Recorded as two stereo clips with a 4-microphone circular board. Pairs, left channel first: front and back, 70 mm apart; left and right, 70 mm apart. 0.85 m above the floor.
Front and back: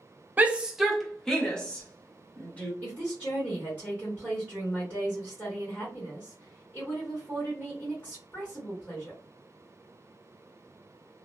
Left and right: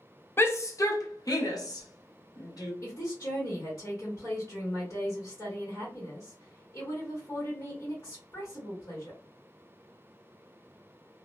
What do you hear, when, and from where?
0.4 s a shout: 125° left, 0.5 m; by 2.7 s 70° left, 1.6 m
2.8 s a woman speaking: 65° left, 1.4 m